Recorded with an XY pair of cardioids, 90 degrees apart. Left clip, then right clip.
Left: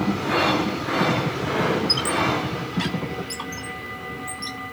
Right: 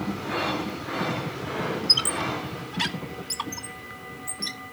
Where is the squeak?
30° right, 1.5 m.